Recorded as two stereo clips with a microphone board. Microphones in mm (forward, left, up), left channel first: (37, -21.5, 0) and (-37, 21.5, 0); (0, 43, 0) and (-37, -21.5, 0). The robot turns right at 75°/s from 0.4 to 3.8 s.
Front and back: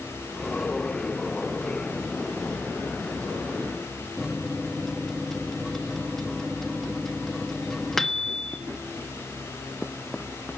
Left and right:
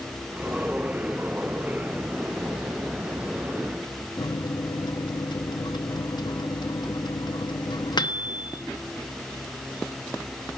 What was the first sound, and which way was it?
A microwave, 55° left.